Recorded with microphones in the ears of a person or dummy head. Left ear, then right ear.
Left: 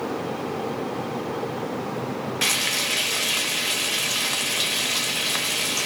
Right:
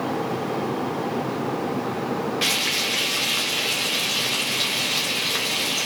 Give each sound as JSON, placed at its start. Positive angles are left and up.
{"t": 2.4, "sound": "frying", "side_deg": 20, "distance_m": 0.6}